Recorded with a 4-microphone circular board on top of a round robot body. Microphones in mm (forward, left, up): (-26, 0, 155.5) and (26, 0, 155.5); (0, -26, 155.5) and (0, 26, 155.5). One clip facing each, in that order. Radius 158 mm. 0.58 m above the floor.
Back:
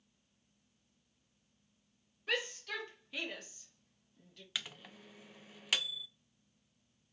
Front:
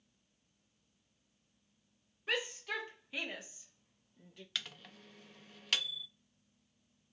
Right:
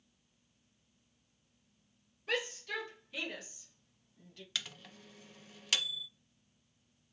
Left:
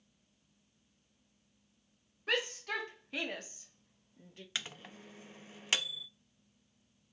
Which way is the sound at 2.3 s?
75° left.